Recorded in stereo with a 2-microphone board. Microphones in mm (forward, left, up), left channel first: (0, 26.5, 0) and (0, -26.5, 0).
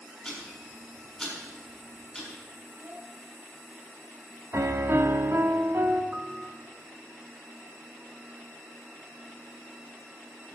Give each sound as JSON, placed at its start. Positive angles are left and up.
{"t": 0.2, "sound": "ticking", "side_deg": 10, "distance_m": 5.0}
{"t": 2.8, "sound": "a child speaking", "side_deg": -50, "distance_m": 3.5}
{"t": 4.5, "sound": "a piano", "side_deg": -60, "distance_m": 0.8}
{"t": 6.1, "sound": "a piano", "side_deg": -30, "distance_m": 0.6}